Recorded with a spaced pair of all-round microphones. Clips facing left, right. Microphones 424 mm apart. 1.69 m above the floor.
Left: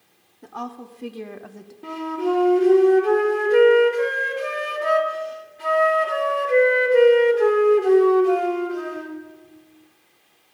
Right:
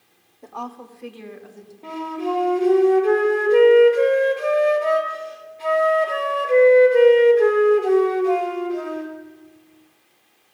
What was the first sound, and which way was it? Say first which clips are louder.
A woman speaking: left 1 dB; 25° left (ahead or behind).